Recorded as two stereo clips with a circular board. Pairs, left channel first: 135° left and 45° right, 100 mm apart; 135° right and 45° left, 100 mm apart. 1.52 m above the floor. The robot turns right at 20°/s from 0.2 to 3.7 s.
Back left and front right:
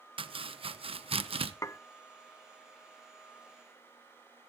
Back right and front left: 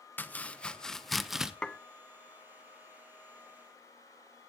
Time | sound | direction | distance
0.2 | chopping | 65° right | 0.9 m
1.6 | dishes clattering | 150° left | 0.6 m